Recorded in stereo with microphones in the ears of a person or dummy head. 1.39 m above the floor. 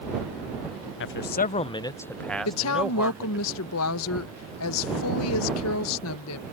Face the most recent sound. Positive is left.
turn(degrees=80)